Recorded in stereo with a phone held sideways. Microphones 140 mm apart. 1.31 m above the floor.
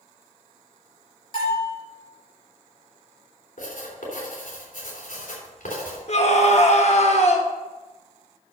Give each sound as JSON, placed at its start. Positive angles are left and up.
{"t": 1.3, "sound": "a bell", "side_deg": 40, "distance_m": 5.5}
{"t": 3.6, "sound": "writing", "side_deg": 75, "distance_m": 3.5}
{"t": 6.1, "sound": "a scream", "side_deg": 55, "distance_m": 1.0}